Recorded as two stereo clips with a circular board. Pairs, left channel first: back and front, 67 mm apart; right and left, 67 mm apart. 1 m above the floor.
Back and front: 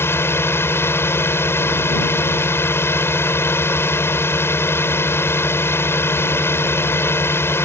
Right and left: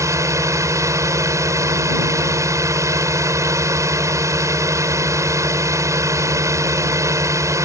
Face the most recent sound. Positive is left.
turn(degrees=130)